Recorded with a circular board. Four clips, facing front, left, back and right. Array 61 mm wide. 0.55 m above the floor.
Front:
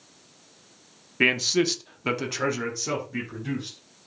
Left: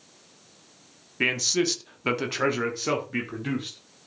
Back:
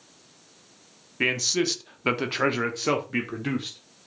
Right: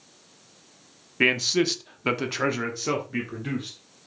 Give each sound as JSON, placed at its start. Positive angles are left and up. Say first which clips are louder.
{"t": 1.2, "sound": "a man speaking", "louder": "right 3 dB, front 3 dB", "azimuth_deg": -40, "distance_m": 1.1}